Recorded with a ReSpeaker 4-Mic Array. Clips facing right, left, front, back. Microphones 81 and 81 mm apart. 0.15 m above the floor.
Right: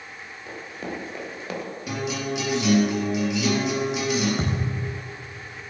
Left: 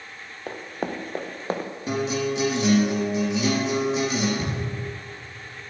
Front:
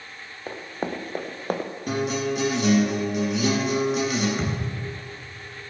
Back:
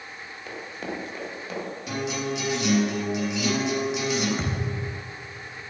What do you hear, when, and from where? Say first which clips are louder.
0.5 s running footsteps: left 4 dB, front 4 dB; 55° left, 1.8 m; by 1.7 s 35° left, 1.7 m
1.9 s a guitar: left 4 dB, front 5 dB; 40° left, 3.5 m
4.4 s a thud: right 2 dB, front 1 dB; 85° right, 4 m